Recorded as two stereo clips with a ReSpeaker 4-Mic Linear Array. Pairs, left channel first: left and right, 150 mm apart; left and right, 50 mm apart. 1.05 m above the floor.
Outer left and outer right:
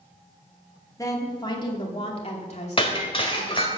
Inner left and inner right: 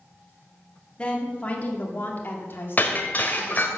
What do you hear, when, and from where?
1.0 s a woman speaking: 20° left (ahead or behind), 2.0 m; by 3.8 s 60° left (ahead or behind), 3 m
2.8 s breaking glass: 35° left (ahead or behind), 1.6 m